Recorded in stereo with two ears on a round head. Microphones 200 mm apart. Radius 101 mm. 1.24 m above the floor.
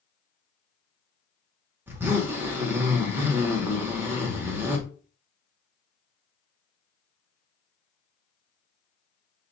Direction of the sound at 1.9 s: 10° right (ahead or behind).